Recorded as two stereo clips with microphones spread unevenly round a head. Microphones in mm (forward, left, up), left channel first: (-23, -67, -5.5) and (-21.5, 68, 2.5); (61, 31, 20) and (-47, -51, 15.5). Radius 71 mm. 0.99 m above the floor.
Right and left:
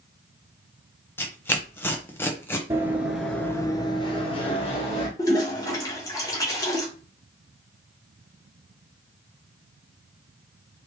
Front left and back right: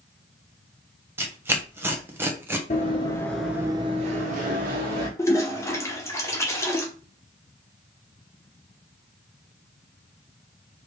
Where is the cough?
I don't hear a cough.